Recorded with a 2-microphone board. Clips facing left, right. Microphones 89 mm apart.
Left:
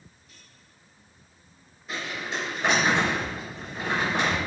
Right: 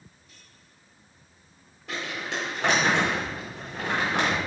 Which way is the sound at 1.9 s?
90° right.